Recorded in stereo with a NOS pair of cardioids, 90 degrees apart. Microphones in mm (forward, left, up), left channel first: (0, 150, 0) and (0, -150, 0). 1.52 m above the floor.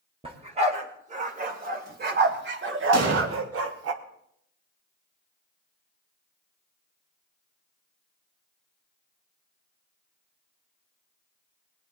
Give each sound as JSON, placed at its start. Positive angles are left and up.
{"t": 0.2, "sound": "a dog barking", "azimuth_deg": -20, "distance_m": 3.0}
{"t": 2.9, "sound": "an explosion", "azimuth_deg": -60, "distance_m": 2.5}